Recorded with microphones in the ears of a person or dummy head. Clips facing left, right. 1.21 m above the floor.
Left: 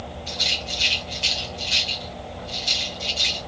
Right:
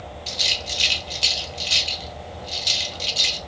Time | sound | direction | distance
0.3 | a rattle | 40° right (ahead or behind) | 0.7 m